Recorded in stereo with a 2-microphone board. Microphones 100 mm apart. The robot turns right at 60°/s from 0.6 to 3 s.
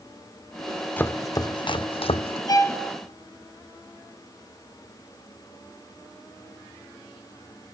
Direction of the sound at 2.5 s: 40° left (ahead or behind).